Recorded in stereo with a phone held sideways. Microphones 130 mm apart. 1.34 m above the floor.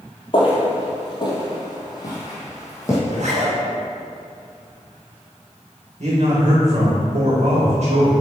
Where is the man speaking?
60° right (ahead or behind), 1.9 m.